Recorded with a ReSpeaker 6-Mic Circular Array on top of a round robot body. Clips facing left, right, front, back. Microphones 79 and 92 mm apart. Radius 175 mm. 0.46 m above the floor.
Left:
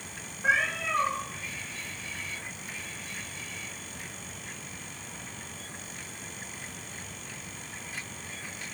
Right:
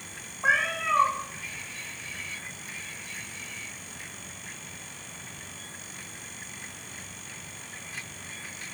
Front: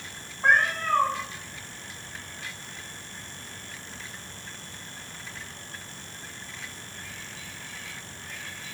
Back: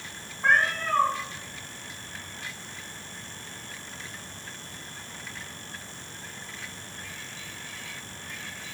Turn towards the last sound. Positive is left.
turn(degrees=-75)